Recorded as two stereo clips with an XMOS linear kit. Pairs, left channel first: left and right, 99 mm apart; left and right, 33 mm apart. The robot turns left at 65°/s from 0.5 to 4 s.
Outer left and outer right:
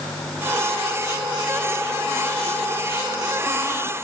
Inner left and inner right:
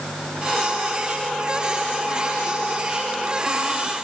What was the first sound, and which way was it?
Only background noise.